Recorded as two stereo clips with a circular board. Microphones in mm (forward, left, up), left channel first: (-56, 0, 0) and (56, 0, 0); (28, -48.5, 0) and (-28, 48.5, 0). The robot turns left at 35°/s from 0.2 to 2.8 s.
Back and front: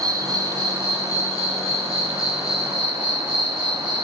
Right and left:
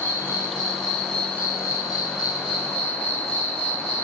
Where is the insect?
45° left, 2.5 m; by 4.0 s 50° right, 2.5 m.